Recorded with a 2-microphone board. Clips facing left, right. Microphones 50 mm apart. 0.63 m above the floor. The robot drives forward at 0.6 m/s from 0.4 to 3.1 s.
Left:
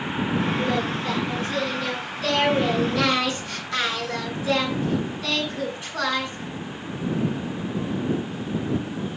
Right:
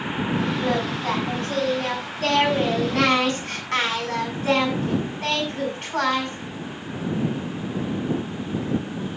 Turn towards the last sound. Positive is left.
turn(degrees=-55)  # may be behind; listen again after turning